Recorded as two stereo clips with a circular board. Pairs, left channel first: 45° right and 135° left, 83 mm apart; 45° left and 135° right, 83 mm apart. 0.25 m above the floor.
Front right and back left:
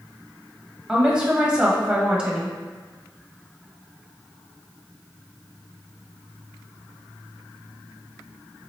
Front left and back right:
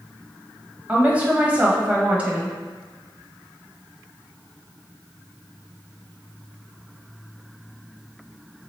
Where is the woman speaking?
170° right, 0.9 m.